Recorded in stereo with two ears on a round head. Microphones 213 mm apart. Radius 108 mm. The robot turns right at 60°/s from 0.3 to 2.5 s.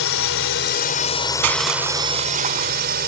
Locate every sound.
0.0 s a drone: 100° left; by 3.1 s 130° right
1.4 s crushing: 90° right; by 2.9 s 25° right